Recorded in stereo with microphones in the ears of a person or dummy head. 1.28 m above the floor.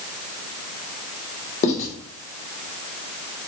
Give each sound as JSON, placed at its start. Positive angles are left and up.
{"t": 1.6, "sound": "writing", "side_deg": 45, "distance_m": 1.3}